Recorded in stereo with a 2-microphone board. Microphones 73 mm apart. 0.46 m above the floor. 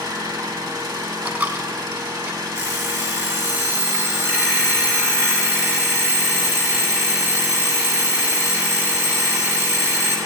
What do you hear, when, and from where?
0.0 s an engine running: 65° right (ahead or behind), 1.4 m
1.2 s a dropped coin: 25° right (ahead or behind), 0.7 m
2.5 s an alarm clock: 30° right (ahead or behind), 2 m